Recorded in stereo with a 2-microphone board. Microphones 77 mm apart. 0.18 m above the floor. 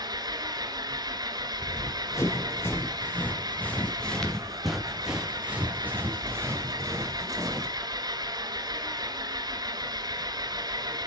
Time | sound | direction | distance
0.0 | an engine running | 60° right (ahead or behind) | 1.1 m
1.6 | running footsteps | 45° left (ahead or behind) | 3.5 m